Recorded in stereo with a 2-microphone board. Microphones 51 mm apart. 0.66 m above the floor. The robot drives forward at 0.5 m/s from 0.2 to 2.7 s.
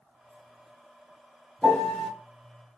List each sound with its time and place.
1.6 s a piano: 10° left (ahead or behind), 1.3 m; by 2.1 s 5° left (ahead or behind), 1.5 m